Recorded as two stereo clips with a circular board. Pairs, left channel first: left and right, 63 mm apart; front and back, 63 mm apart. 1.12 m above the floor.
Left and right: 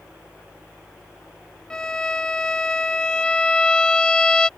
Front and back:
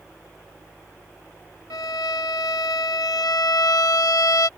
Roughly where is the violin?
Ahead.